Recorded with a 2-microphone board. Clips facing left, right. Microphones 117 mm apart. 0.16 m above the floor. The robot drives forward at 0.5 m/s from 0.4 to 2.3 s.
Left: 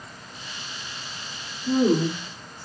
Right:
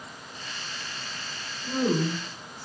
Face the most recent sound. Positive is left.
turn(degrees=35)  # may be behind; listen again after turning